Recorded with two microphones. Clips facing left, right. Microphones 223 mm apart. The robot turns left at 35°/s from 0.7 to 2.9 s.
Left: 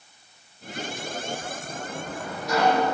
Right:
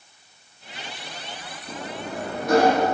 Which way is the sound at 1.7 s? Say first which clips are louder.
Right 5 dB; 105° right.